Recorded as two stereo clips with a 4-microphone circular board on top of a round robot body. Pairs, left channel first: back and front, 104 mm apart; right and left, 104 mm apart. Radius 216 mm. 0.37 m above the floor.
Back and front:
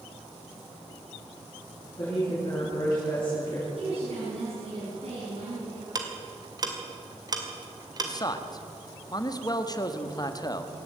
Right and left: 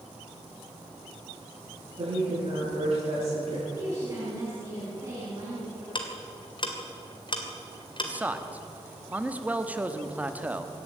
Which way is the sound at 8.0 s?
160° left.